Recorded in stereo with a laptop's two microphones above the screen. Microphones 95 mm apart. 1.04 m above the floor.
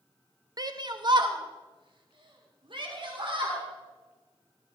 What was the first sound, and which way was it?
A shout, 40° right (ahead or behind).